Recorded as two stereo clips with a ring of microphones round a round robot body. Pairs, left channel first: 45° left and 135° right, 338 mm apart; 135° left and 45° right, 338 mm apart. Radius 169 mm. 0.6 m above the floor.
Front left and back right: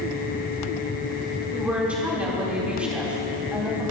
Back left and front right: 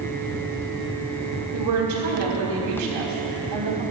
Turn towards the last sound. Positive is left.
turn(degrees=-50)